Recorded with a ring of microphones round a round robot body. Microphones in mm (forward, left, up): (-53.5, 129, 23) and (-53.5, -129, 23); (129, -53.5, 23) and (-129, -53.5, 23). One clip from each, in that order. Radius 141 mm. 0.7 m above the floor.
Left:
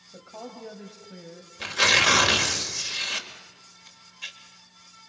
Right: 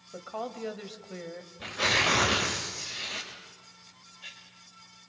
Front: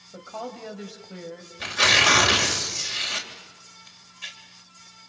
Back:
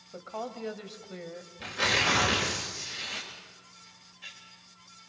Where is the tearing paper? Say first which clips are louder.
Left 6 dB, front 8 dB; 65° left, 3 m.